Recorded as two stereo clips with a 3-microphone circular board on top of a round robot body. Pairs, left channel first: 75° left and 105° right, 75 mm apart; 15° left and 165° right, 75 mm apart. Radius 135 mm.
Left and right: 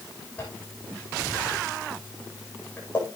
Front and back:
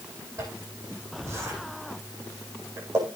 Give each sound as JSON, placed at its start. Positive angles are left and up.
{"t": 0.4, "sound": "a zipper", "azimuth_deg": 145, "distance_m": 8.0}